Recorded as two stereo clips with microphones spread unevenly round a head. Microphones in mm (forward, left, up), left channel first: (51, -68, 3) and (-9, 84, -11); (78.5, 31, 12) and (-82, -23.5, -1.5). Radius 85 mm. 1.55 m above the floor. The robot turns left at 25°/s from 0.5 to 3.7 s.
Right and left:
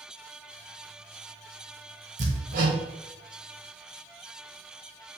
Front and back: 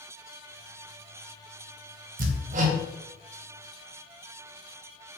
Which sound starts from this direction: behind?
Hammering, at 2.2 s.